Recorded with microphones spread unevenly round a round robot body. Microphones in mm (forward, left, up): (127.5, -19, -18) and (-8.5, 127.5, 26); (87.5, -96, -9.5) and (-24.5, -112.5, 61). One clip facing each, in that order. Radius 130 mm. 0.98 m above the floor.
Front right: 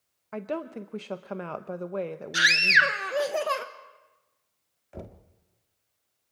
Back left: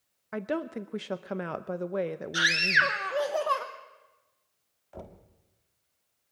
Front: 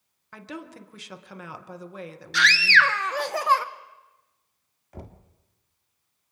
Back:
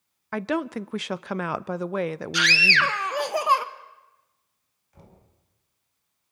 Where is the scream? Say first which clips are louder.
Even, front 5 dB; 60° right, 1.0 m.